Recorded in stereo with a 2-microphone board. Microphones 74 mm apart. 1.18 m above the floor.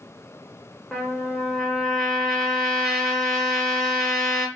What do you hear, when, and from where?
0.9 s a trumpet: centre (ahead or behind), 0.9 m